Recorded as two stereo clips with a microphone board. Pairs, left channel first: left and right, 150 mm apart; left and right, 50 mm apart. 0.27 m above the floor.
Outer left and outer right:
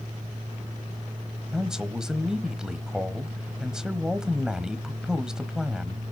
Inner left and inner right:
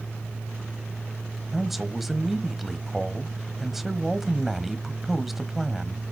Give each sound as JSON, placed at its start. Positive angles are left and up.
{"t": 1.5, "sound": "a man speaking", "side_deg": -5, "distance_m": 1.1}